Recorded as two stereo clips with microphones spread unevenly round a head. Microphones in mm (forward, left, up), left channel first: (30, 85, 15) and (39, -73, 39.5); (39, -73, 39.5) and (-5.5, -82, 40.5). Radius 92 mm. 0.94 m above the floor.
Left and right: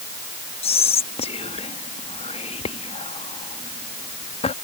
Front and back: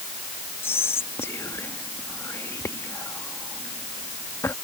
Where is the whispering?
45° left.